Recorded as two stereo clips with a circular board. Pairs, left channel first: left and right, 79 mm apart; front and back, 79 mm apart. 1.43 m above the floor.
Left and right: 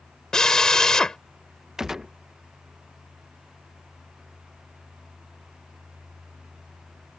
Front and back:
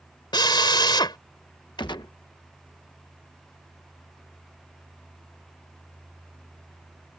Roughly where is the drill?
Ahead.